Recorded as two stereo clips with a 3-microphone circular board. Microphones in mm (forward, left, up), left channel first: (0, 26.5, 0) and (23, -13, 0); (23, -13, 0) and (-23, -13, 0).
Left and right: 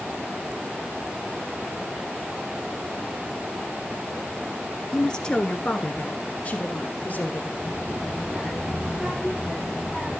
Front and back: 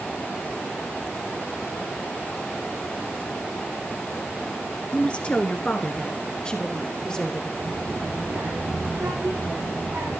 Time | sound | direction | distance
4.9 | a woman speaking | 50° left | 1.6 m
7.6 | a child speaking | 150° right | 7 m